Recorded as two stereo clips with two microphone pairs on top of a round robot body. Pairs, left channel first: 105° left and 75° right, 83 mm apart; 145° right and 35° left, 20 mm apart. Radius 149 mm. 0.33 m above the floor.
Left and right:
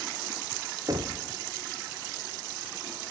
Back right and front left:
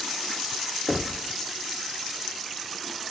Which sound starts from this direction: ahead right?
Knocking, at 0.9 s.